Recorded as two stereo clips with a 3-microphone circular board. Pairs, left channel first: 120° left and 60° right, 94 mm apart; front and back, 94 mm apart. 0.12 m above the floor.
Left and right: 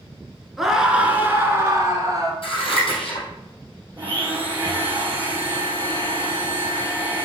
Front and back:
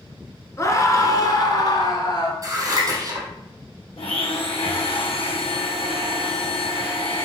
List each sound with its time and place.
0.6 s a scream: 25° left, 1.2 m; by 2.3 s 25° right, 1.6 m
2.4 s scissors: 130° left, 3.5 m
4.0 s a blender: 10° left, 1.5 m